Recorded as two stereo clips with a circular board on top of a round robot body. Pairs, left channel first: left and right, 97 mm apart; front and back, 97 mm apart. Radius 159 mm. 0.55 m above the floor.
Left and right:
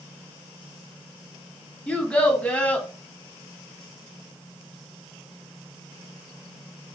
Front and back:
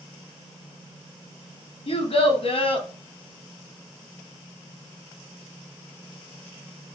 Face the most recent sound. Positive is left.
turn(degrees=10)